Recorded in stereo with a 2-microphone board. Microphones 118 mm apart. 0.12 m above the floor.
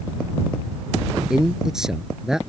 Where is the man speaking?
5° right (ahead or behind).